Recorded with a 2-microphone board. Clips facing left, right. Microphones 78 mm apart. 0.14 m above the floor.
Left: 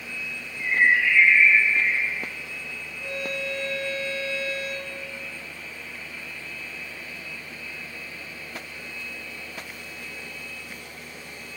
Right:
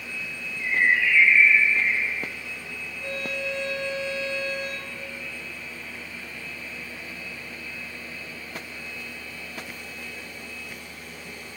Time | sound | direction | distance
0.6 | a bird | 60° left (ahead or behind) | 5 m
3.0 | a violin | 5° left (ahead or behind) | 4.5 m